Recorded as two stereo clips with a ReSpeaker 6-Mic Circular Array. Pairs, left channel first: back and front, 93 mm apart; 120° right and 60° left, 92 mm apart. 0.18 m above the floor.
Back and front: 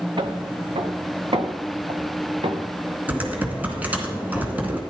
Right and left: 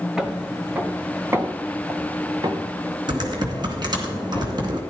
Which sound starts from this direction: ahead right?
Footsteps, at 0.2 s.